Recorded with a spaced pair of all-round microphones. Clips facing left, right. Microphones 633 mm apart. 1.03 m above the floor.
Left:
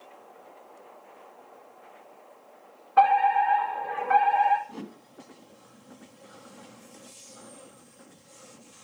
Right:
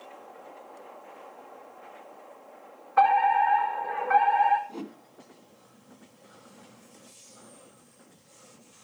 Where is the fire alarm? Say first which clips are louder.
Left 1 dB; 55° left (ahead or behind), 5 m.